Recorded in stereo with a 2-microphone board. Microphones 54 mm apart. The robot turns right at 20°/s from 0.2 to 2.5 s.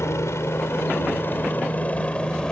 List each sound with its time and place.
0.0 s a helicopter: 55° left (ahead or behind); by 2.5 s 15° left (ahead or behind)